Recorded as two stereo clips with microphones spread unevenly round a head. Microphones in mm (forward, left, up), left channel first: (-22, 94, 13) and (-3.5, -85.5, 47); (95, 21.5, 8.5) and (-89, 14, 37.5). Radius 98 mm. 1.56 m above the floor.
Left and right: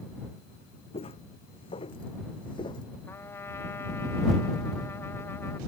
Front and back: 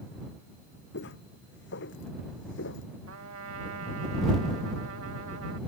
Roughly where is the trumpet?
Behind.